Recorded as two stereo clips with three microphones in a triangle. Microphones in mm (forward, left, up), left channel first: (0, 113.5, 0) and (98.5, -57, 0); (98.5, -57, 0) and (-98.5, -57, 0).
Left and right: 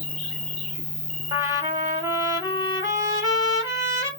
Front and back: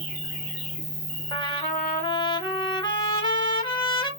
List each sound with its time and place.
0.0 s an insect: 125° left, 1.7 m
1.3 s a trumpet: 15° right, 1.2 m